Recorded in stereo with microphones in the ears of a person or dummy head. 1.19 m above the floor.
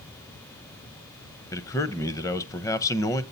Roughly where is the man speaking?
Centre.